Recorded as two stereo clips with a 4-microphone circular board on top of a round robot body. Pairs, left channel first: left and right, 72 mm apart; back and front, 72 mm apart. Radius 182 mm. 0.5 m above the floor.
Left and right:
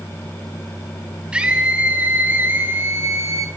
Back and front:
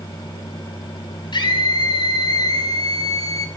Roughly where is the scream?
Behind.